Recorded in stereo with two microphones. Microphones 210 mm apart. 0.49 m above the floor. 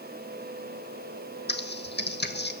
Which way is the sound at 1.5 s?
55° left (ahead or behind).